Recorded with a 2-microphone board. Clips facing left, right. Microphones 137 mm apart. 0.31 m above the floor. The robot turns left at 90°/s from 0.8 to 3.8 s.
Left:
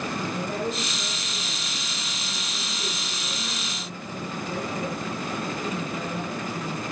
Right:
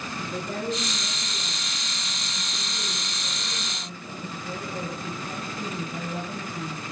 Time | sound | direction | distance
0.3 | a woman speaking | 120° right | 9 m